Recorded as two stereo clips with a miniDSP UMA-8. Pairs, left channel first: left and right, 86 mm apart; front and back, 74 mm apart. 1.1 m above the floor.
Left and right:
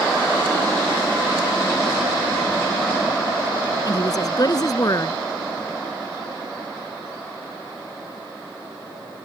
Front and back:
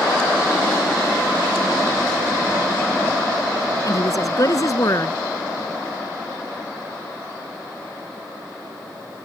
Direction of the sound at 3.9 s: 45° left.